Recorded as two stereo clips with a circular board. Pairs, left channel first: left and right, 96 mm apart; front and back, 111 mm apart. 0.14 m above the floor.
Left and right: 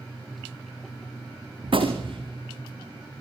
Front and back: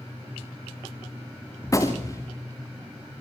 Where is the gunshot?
60° right, 2.5 m.